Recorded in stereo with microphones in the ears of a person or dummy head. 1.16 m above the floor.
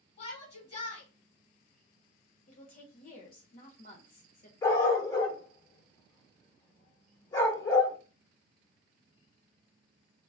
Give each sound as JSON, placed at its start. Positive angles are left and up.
{"t": 0.2, "sound": "a shout", "side_deg": 30, "distance_m": 1.4}
{"t": 2.5, "sound": "a woman speaking", "side_deg": 50, "distance_m": 0.8}
{"t": 4.6, "sound": "a dog barking", "side_deg": 25, "distance_m": 1.1}